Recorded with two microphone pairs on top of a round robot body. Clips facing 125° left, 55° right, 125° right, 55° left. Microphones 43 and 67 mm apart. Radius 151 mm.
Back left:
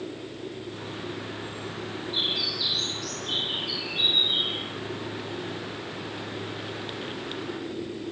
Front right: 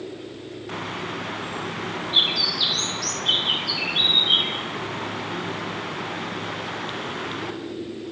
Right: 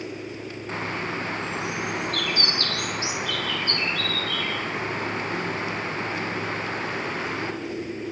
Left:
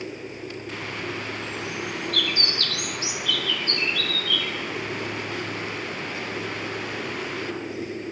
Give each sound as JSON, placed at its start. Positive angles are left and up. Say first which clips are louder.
{"t": 0.7, "sound": "a bird", "louder": "front right 5 dB, right 4 dB", "azimuth_deg": -65, "distance_m": 5.0}